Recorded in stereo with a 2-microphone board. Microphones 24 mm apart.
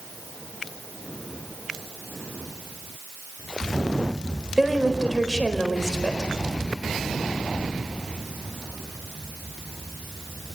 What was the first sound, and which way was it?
A woman speaking, 10° right (ahead or behind).